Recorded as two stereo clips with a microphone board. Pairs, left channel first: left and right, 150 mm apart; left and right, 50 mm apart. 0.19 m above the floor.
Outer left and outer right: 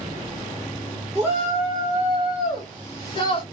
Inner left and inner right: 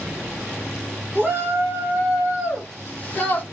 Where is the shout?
40° right (ahead or behind), 2.5 m; by 3.4 s 40° left (ahead or behind), 2 m.